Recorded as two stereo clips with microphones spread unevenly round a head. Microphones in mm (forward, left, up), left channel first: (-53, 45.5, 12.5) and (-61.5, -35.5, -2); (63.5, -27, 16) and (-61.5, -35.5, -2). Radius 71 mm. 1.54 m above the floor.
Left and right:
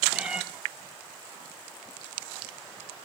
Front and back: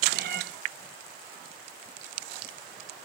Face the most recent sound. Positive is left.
turn(degrees=175)